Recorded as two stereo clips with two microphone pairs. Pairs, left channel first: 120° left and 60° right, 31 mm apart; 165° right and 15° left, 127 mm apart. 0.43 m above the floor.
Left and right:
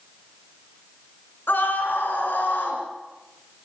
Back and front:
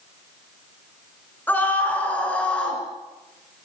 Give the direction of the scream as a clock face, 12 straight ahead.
8 o'clock.